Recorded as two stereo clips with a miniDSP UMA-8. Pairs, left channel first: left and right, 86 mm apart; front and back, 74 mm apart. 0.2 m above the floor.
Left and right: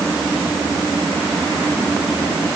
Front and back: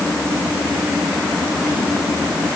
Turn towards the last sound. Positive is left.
No sound to turn to.